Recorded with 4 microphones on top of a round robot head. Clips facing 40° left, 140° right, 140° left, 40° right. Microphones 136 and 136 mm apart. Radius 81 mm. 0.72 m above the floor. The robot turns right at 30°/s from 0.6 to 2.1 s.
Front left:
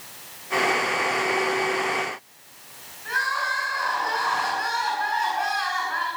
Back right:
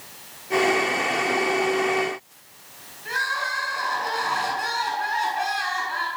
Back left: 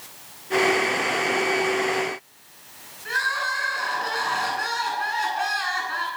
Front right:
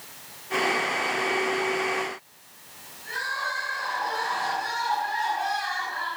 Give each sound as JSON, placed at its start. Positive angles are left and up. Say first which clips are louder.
{"t": 3.0, "sound": "crying", "louder": "front left 1 dB, back left 4 dB", "azimuth_deg": 160, "distance_m": 9.0}